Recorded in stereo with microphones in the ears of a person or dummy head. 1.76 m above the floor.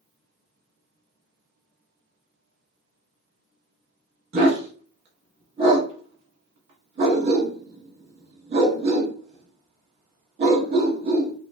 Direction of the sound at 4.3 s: 35° right (ahead or behind).